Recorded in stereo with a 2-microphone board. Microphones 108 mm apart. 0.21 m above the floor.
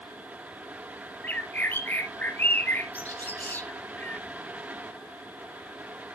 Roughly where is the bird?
Centre.